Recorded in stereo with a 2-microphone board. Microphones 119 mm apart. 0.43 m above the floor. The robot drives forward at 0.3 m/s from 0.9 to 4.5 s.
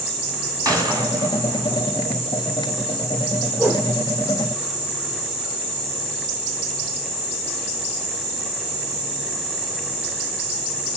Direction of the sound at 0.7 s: 30° right (ahead or behind).